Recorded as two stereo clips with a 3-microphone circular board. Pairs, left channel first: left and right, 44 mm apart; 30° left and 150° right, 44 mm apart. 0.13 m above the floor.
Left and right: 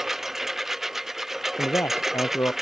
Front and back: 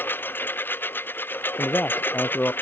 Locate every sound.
0.0 s a lawn mower: 10° right
1.6 s a man speaking: 85° left